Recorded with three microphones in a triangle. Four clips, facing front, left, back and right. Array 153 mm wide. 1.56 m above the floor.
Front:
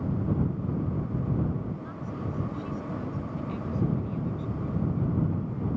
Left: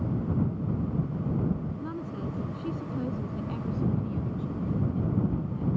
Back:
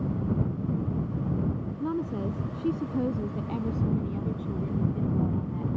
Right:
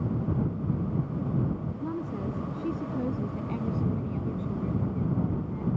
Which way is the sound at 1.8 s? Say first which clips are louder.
Right 2 dB, back 7 dB; 170° right.